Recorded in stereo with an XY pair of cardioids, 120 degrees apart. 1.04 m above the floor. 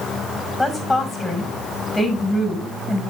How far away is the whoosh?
I don't hear a whoosh.